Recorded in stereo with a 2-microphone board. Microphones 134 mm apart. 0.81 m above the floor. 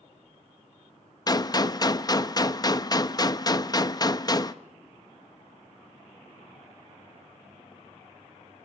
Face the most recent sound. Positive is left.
turn(degrees=30)  # may be behind; listen again after turning